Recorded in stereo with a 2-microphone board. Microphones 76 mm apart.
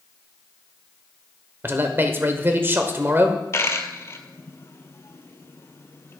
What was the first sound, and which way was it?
A man speaking, 30° right (ahead or behind).